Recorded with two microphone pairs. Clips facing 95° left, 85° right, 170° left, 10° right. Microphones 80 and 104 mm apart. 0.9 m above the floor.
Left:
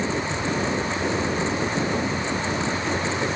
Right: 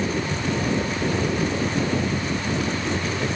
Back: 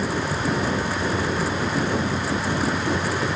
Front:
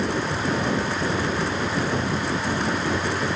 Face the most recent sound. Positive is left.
No sound to turn to.